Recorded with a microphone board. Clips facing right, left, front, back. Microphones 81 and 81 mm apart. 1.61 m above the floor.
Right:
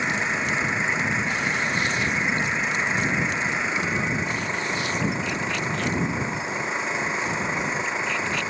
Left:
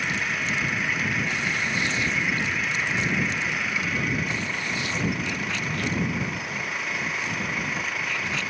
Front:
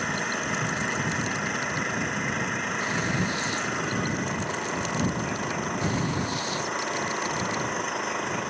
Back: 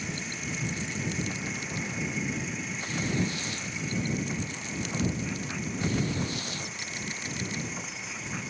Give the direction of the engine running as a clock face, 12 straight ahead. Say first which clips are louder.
Right 3 dB, front 8 dB; 1 o'clock.